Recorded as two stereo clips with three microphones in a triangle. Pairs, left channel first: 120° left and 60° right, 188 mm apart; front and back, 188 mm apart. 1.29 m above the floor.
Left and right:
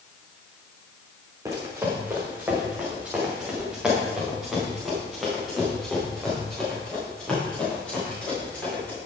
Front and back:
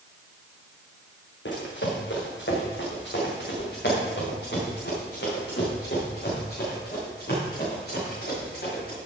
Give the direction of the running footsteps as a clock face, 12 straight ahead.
12 o'clock.